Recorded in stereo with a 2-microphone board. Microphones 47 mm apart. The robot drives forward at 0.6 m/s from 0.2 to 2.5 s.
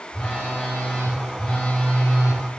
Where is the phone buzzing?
45° left (ahead or behind), 4 m; by 2.4 s 35° left (ahead or behind), 5 m.